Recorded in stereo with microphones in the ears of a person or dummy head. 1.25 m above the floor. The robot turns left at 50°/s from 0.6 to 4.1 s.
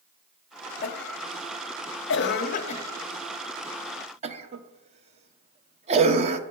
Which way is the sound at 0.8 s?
45° left (ahead or behind).